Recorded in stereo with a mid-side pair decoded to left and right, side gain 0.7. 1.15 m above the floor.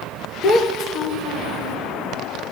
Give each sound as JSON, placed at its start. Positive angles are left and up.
{"t": 0.4, "sound": "a child speaking", "azimuth_deg": 30, "distance_m": 0.8}